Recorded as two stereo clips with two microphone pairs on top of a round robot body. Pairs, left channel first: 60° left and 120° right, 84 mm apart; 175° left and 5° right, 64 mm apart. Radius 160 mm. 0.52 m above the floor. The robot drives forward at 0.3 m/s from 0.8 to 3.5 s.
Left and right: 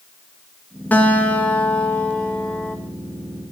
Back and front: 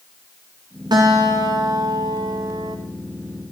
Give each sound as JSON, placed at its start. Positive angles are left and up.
{"t": 0.9, "sound": "a guitar", "azimuth_deg": -10, "distance_m": 2.0}